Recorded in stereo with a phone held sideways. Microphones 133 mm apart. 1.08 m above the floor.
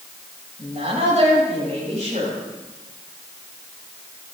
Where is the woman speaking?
55° right (ahead or behind), 6.5 m.